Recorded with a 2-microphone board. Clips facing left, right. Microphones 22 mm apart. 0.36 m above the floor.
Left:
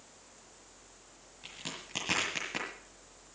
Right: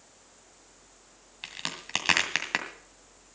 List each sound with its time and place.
1.4 s a crack: 65° right (ahead or behind), 2 m